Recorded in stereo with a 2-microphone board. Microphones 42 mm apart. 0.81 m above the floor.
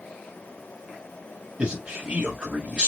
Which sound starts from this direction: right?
A man speaking, at 1.6 s.